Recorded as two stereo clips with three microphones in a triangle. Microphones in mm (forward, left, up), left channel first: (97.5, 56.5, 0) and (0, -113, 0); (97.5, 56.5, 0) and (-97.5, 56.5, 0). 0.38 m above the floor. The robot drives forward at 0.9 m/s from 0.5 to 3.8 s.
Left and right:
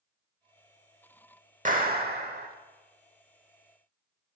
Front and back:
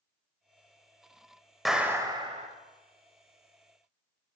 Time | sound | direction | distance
1.6 | a clap | 90° right | 1.0 m